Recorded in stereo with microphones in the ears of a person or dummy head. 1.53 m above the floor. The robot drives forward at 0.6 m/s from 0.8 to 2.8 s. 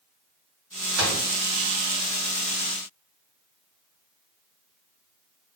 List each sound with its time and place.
0.9 s a gunshot: 85° right, 5.5 m